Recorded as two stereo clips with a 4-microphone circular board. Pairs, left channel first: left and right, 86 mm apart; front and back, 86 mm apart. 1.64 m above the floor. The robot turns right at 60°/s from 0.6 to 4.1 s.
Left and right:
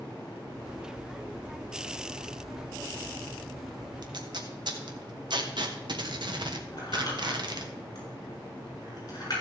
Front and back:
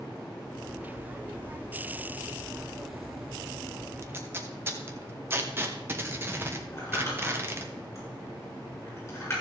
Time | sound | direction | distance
4.0 | tape being pulled | 125° right | 1.3 m
6.7 | crumpling | 50° left | 7 m